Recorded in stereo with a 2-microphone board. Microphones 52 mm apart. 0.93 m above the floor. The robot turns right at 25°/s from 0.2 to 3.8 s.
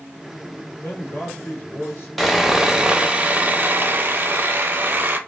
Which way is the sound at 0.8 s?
90° left.